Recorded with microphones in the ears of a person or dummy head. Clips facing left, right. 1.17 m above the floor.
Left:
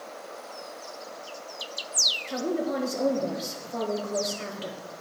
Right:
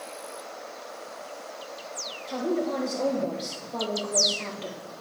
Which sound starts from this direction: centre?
A woman speaking, at 2.3 s.